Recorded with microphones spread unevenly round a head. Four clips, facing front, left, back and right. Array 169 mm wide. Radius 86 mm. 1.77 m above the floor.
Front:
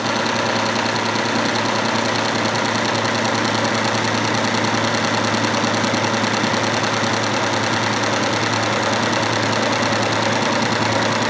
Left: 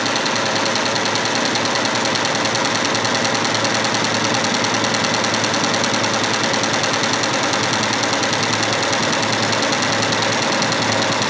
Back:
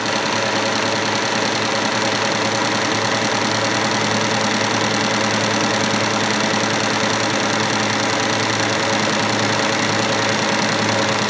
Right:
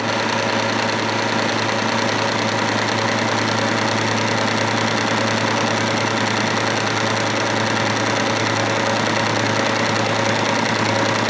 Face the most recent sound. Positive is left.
No sound to turn to.